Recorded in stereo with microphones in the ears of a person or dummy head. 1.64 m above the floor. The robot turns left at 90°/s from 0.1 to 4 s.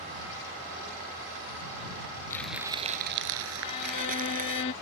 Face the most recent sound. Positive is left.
turn(degrees=25)  # may be behind; listen again after turning